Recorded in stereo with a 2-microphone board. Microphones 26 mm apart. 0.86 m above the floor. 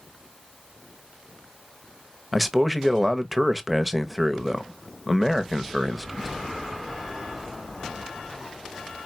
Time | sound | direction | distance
2.3 | a man speaking | 5° right (ahead or behind) | 0.9 m